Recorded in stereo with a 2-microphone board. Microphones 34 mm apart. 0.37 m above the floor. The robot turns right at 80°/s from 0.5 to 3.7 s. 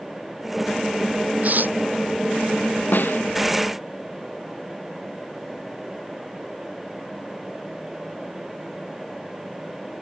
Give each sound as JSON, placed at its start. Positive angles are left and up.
{"t": 1.4, "sound": "tearing paper", "side_deg": -50}
{"t": 2.9, "sound": "a snare drum", "side_deg": 60}